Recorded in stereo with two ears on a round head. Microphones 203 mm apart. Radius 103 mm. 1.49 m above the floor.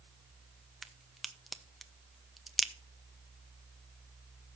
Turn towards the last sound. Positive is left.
turn(degrees=0)  # may be behind; listen again after turning